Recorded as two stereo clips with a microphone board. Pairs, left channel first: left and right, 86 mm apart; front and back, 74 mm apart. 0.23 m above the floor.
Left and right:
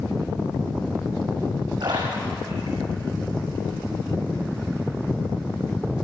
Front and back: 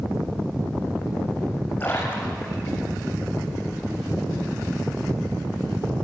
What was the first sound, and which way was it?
A splash, 60° right.